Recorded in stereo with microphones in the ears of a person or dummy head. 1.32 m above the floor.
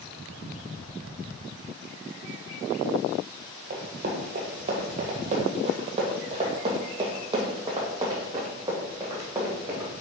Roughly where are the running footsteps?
Right.